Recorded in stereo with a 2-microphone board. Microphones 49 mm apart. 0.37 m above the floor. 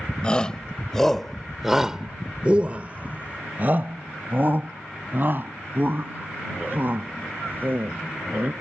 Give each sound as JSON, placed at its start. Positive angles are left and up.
{"t": 0.2, "sound": "a shout", "side_deg": 20}